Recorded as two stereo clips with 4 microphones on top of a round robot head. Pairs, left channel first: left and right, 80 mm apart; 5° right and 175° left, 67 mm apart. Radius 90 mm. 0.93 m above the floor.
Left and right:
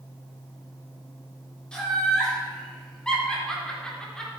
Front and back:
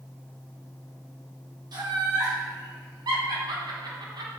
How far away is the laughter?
About 4.5 m.